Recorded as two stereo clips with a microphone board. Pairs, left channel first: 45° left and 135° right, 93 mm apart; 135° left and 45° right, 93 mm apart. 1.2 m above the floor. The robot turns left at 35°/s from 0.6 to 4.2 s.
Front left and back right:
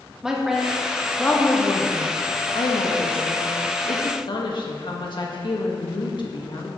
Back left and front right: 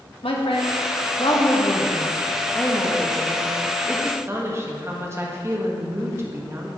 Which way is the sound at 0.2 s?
140° left.